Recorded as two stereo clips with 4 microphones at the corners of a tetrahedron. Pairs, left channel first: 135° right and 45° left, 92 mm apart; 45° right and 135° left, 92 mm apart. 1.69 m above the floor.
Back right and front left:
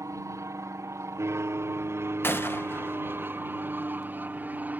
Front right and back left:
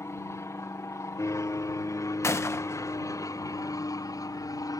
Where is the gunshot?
85° right.